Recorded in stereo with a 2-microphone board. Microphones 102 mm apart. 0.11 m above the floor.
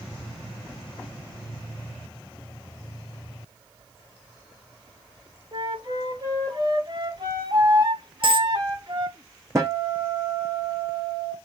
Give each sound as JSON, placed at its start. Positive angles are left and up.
{"t": 5.5, "sound": "a flute", "side_deg": -50, "distance_m": 3.0}
{"t": 8.2, "sound": "a dropped coin", "side_deg": -60, "distance_m": 1.0}
{"t": 9.6, "sound": "a guitar", "side_deg": -30, "distance_m": 1.2}